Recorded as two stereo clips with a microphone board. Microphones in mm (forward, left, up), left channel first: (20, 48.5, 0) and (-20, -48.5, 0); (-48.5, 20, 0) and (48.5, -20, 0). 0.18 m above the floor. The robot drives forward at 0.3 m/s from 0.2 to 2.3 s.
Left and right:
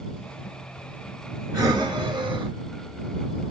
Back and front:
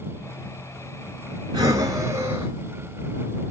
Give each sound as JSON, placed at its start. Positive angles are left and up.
{"t": 1.5, "sound": "breathing", "azimuth_deg": -65, "distance_m": 0.8}